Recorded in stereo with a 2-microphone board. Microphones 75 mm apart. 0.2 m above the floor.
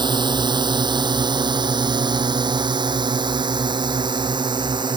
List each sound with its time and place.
0.0 s a drone: 80° right